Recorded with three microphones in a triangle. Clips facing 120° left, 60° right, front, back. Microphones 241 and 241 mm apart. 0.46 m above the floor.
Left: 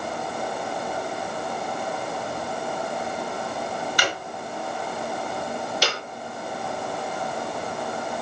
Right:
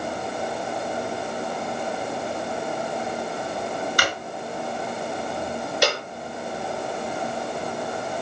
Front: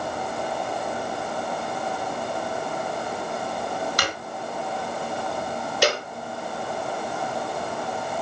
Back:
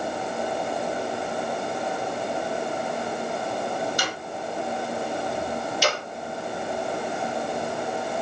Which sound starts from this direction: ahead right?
A clap, at 5.8 s.